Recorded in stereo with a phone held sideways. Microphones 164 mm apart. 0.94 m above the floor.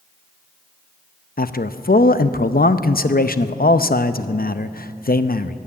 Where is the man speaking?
65° left (ahead or behind), 0.6 m.